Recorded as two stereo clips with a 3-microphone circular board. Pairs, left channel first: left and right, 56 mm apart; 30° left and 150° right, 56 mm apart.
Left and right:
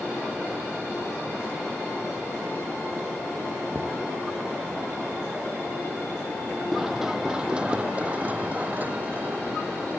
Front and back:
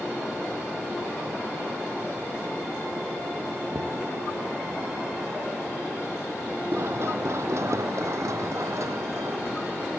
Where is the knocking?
145° right.